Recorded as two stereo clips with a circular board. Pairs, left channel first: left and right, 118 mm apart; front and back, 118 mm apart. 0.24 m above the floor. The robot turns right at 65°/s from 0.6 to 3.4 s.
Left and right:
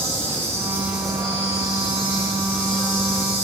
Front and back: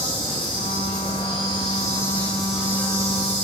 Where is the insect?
30° right, 3 m; by 3.4 s 150° left, 3 m.